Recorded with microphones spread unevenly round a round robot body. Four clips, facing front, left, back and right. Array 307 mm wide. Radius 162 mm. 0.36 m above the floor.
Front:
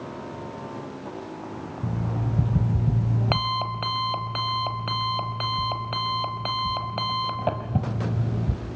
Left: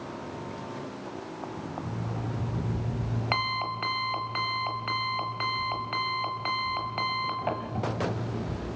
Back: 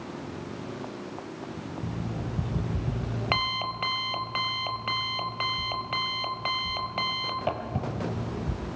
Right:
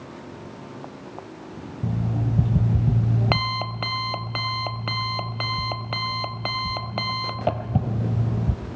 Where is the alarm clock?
65° right, 1.3 m.